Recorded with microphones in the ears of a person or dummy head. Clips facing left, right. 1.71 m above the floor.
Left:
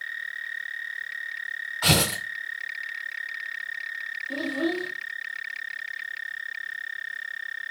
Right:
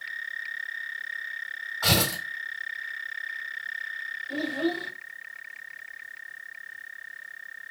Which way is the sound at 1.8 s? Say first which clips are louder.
Left 2 dB; 40° left (ahead or behind).